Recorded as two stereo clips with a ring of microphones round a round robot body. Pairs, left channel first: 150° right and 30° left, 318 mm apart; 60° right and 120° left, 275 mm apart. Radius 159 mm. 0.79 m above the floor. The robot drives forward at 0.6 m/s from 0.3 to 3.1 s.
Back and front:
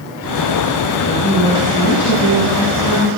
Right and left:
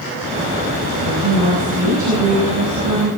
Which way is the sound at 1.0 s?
150° left.